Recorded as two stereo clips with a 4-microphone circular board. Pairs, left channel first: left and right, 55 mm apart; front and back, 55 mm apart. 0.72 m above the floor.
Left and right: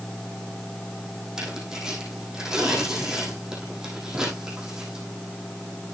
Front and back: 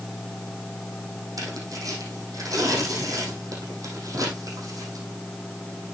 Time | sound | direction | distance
1.4 | tearing paper | 170° right | 5 m